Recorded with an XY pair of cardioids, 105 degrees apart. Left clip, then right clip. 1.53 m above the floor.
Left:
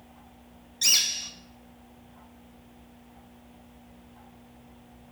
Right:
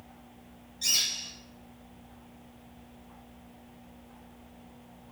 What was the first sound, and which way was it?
A bird, 70° left.